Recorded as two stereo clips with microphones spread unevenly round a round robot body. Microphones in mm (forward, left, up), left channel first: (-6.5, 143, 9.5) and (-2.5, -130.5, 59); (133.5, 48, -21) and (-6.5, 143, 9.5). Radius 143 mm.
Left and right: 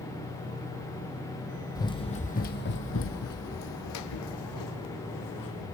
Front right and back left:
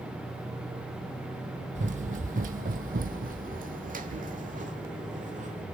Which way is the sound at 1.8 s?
175° left.